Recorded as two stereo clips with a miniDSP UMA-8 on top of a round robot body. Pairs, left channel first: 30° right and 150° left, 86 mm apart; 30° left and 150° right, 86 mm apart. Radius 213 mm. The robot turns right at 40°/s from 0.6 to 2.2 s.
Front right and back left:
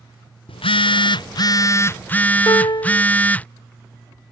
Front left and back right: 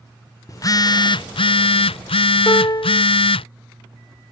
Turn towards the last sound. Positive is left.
turn(degrees=-5)